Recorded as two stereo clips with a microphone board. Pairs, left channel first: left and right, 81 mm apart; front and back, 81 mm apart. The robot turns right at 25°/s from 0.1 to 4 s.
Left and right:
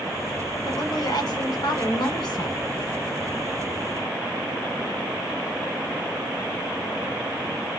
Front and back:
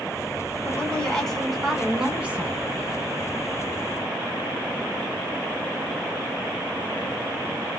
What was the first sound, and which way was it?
A woman speaking, 70° left.